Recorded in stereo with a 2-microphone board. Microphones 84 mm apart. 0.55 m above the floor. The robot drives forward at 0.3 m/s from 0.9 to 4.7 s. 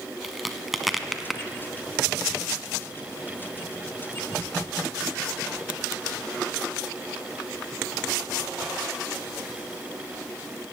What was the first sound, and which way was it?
A crack, centre (ahead or behind).